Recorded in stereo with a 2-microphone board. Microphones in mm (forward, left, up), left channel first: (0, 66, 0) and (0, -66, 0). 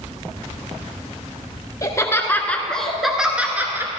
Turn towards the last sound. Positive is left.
turn(degrees=-20)  # may be behind; listen again after turning